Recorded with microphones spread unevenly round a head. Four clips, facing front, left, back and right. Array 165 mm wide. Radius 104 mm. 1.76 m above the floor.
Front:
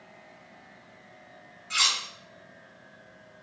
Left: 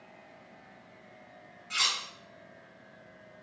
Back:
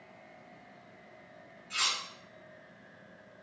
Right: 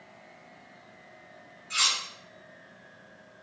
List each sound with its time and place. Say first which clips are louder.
1.7 s cutlery clinking: right 2 dB, front 5 dB; 5° right, 1.1 m